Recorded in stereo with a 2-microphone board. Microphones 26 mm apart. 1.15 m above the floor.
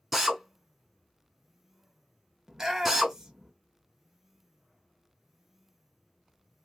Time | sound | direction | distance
0.1 | a drill | 10° right (ahead or behind) | 1.2 m
2.5 | a shout | 25° right (ahead or behind) | 0.9 m